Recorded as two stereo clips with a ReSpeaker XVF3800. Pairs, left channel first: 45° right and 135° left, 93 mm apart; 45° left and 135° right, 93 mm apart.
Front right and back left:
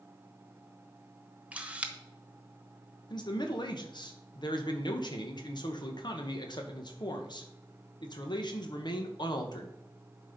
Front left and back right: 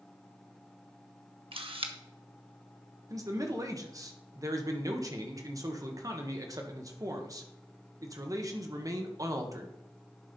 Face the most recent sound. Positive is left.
turn(degrees=-85)